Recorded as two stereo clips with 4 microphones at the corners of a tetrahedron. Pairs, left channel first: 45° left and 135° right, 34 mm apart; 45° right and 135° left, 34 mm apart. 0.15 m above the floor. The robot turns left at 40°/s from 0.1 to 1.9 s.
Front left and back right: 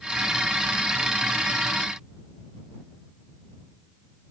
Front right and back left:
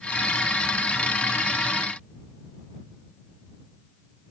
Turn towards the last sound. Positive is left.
No sound to turn to.